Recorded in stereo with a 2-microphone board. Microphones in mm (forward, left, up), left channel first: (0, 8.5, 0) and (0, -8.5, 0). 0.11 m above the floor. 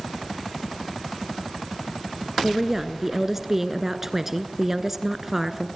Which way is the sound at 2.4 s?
15° right (ahead or behind).